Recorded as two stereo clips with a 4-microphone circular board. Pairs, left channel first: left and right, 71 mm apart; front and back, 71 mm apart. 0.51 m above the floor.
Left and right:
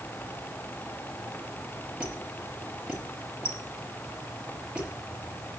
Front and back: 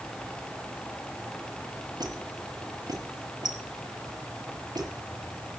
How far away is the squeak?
About 5 m.